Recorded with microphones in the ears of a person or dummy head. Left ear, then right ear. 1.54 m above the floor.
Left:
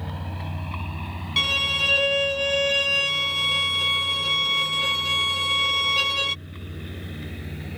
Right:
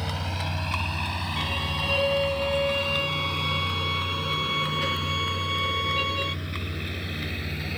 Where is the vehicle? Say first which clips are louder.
Right 5 dB; 75° right (ahead or behind); by 7.8 s 45° right (ahead or behind).